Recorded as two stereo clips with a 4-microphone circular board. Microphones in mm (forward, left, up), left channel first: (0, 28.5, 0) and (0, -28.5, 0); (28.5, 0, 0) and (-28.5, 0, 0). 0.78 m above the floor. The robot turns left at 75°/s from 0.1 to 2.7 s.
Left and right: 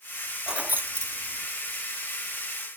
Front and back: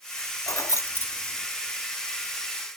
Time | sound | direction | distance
0.5 | keys jangling | 10° right | 0.7 m